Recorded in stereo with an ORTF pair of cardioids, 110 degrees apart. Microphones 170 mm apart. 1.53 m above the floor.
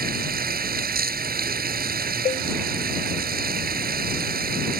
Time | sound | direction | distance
0.0 | running water | 60° right | ?
2.2 | a cowbell | 35° left | ?